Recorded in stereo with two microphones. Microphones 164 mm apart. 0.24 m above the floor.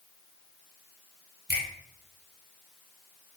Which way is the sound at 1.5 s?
20° right (ahead or behind).